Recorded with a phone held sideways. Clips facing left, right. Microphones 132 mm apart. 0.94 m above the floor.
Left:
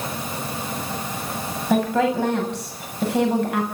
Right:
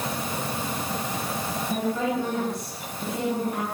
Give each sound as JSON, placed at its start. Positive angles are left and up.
{"t": 1.7, "sound": "a woman speaking", "side_deg": 80, "distance_m": 6.5}